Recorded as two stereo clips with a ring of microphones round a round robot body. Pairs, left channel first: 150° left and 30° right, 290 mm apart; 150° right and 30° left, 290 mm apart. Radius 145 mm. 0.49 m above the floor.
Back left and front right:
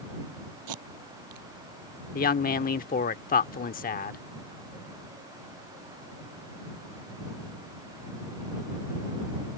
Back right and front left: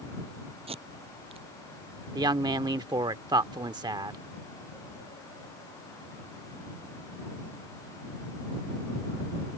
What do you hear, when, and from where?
0.7 s tape being pulled: 40° right
2.1 s a woman speaking: 100° left